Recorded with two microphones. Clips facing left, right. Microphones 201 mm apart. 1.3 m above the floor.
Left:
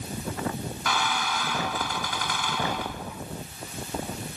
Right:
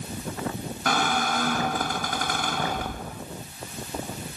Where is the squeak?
50° right (ahead or behind).